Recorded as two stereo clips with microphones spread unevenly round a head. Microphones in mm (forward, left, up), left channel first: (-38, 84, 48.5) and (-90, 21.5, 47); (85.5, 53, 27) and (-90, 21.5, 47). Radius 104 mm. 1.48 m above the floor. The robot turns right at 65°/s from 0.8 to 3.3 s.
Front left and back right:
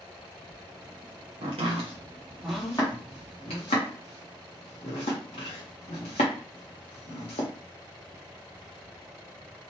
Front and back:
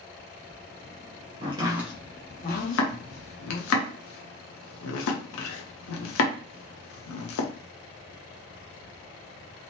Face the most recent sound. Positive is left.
turn(degrees=10)